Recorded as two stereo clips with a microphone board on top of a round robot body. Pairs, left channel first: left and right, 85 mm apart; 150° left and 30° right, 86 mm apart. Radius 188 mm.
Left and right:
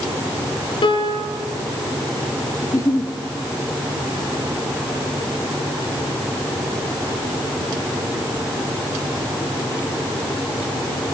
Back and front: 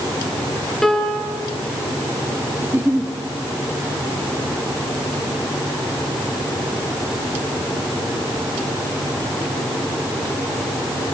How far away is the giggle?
About 1.8 m.